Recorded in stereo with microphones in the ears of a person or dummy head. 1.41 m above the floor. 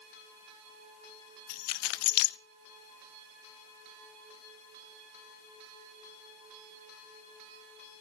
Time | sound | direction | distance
1.5 | keys jangling | 55° left (ahead or behind) | 0.6 m